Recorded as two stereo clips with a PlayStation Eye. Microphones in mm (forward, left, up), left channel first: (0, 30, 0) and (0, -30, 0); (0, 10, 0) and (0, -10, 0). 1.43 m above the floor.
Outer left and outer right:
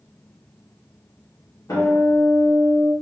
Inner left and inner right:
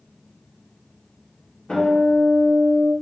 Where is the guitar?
65° left (ahead or behind), 1.3 m.